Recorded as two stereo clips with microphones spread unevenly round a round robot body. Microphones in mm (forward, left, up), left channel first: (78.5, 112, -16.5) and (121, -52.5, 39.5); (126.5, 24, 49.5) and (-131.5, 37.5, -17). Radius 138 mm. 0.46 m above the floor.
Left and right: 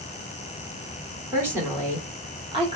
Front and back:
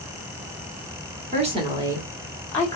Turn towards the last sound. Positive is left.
turn(degrees=-105)